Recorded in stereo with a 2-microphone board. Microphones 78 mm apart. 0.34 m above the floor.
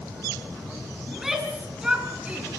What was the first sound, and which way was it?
A shout, centre (ahead or behind).